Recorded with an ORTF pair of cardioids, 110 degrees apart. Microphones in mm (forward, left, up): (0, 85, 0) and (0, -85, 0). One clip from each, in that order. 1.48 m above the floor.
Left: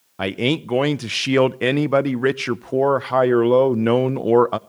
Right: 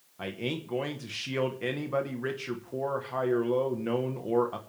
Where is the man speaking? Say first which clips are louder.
Left 13 dB; 65° left, 1.0 m.